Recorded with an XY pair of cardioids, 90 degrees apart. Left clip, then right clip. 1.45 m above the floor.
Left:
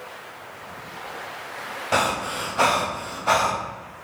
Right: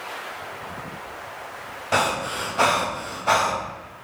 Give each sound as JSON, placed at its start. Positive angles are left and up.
{"t": 1.9, "sound": "breathing", "azimuth_deg": 5, "distance_m": 0.7}